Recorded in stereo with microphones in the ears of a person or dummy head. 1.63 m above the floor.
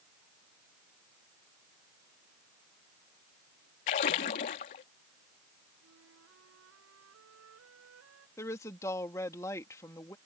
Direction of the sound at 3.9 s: 35° left (ahead or behind).